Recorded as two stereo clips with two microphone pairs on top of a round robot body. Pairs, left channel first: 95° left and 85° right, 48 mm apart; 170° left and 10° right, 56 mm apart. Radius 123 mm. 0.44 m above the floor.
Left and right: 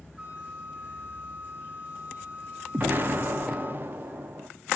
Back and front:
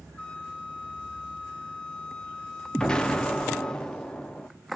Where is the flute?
140° right, 1.7 m.